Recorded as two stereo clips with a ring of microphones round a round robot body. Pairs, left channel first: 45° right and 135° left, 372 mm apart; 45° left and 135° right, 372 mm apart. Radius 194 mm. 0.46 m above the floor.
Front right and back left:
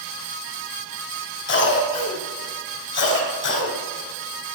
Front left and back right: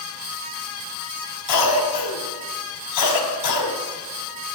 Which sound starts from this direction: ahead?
A cough, at 1.5 s.